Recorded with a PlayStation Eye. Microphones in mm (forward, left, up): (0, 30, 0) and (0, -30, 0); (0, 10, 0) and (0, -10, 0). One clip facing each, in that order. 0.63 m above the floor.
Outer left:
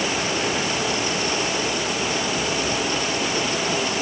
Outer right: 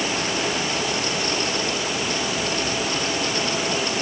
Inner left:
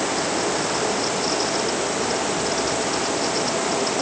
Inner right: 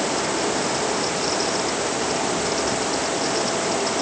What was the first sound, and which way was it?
Only background noise.